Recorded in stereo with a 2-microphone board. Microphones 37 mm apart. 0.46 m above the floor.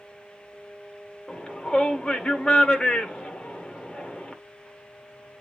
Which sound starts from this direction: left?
A shout, at 1.3 s.